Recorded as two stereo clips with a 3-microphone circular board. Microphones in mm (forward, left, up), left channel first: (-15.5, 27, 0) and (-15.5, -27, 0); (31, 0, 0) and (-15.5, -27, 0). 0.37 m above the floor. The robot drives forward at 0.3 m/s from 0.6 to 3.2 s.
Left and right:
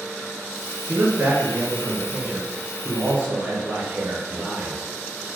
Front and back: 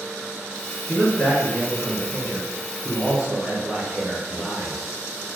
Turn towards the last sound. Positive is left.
turn(degrees=-65)